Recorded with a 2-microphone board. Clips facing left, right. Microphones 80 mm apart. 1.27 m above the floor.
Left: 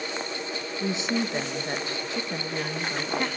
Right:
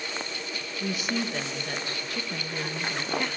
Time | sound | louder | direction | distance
0.8 | a woman speaking | left 2 dB | 25° left (ahead or behind) | 1.5 m